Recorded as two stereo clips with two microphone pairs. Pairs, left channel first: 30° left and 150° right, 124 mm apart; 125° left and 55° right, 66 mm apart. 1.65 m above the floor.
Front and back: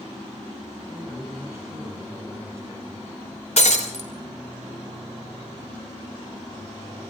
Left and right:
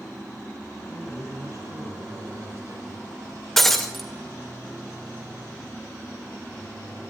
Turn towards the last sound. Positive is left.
turn(degrees=40)